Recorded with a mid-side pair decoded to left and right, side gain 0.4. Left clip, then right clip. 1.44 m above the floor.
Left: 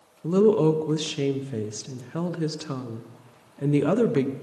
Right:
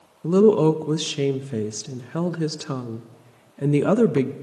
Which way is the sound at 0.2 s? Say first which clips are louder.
Right 3 dB; 35° right.